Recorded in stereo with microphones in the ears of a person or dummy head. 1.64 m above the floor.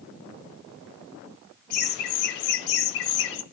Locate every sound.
1.7 s laughter: 60° left (ahead or behind), 1.9 m; by 3.4 s 70° left (ahead or behind), 1.4 m